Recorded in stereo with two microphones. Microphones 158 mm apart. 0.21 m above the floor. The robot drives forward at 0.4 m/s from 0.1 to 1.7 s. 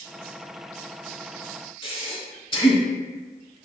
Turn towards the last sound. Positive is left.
turn(degrees=35)  # may be behind; listen again after turning